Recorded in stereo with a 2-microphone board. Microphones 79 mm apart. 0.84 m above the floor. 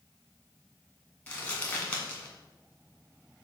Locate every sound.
1.3 s crumpling: 25° left (ahead or behind), 1.7 m